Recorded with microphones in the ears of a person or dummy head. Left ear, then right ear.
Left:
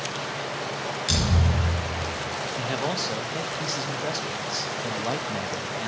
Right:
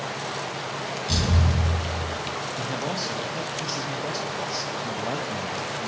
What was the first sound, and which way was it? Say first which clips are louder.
A thud: left 1 dB; 45° left (ahead or behind).